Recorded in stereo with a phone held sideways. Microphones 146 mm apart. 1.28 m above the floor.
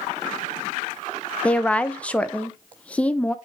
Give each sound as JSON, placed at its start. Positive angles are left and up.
{"t": 1.4, "sound": "a woman speaking", "side_deg": 10, "distance_m": 0.8}